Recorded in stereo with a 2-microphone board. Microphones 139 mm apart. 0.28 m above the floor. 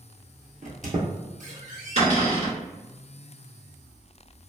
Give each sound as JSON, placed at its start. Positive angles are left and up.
{"t": 0.6, "sound": "a squeak", "side_deg": -75, "distance_m": 0.9}
{"t": 2.0, "sound": "a cupboard door", "side_deg": -60, "distance_m": 1.8}